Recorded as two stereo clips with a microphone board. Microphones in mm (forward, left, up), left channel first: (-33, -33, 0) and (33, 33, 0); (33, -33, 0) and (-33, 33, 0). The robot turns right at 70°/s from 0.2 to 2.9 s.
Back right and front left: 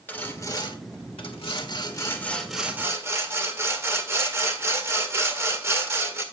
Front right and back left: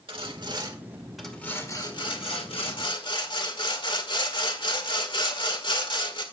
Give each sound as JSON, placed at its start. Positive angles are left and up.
{"t": 0.1, "sound": "sawing", "azimuth_deg": 155, "distance_m": 1.6}